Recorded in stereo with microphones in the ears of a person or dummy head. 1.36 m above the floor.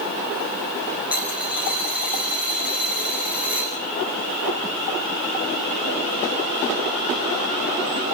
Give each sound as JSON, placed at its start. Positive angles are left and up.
{"t": 1.1, "sound": "a dropped coin", "side_deg": -10, "distance_m": 3.5}